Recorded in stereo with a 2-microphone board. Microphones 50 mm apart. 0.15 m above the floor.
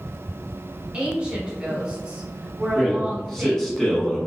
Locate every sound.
0.9 s a woman speaking: 20° right (ahead or behind), 1.0 m
2.8 s a man speaking: 10° left (ahead or behind), 1.1 m